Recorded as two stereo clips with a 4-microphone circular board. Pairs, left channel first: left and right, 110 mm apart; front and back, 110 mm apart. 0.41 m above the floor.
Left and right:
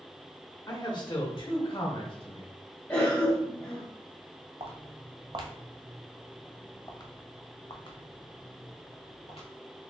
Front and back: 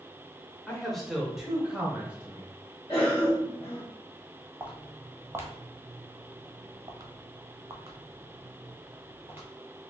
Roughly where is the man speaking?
Left.